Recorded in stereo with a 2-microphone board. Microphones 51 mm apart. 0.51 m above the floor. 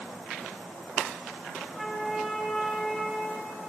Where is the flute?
Centre (ahead or behind), 0.9 m.